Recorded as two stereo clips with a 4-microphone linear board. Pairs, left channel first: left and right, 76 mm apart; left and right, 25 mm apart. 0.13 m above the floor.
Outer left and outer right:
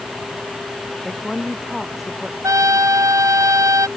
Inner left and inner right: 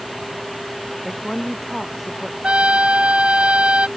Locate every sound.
1.1 s a woman speaking: centre (ahead or behind)
2.4 s a trumpet: 50° right (ahead or behind)